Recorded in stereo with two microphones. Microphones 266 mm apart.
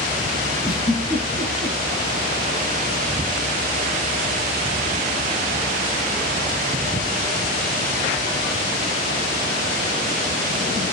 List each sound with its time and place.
0.6 s a giggle: 20° left (ahead or behind), 4 m